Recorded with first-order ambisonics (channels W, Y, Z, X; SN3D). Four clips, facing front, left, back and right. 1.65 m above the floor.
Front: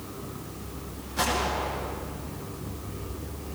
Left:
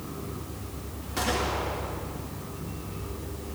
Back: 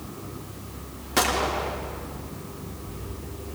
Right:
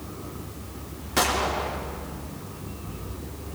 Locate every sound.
1.2 s a gunshot: 150° right, 4.5 m